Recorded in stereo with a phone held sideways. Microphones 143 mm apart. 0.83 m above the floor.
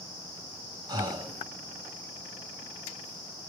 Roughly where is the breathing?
Right.